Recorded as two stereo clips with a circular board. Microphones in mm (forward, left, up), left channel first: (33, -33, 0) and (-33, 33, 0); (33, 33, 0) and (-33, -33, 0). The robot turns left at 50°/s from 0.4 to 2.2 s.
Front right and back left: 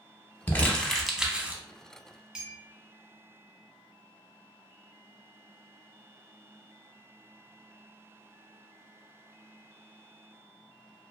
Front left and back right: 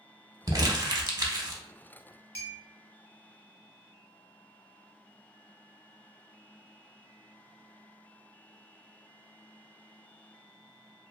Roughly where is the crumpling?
Right.